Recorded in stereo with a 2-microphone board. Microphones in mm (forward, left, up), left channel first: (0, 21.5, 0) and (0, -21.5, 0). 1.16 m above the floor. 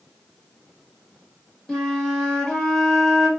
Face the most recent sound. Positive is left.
turn(degrees=10)  # may be behind; listen again after turning